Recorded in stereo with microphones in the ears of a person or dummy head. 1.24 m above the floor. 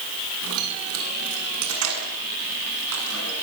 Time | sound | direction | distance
0.4 | keys jangling | 80° right | 7.5 m